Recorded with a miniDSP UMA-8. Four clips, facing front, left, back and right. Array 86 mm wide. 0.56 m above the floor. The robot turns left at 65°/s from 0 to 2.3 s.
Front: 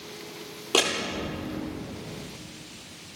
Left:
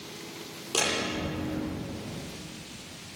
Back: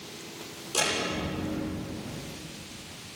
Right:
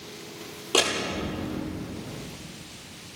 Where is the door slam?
25° right, 9.5 m; by 1.6 s 85° right, 9.5 m.